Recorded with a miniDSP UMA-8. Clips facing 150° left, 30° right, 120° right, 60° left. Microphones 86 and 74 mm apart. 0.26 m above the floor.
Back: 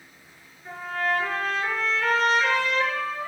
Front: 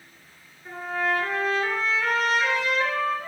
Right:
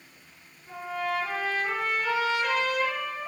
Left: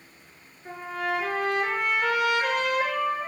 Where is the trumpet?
60° left, 5.5 m.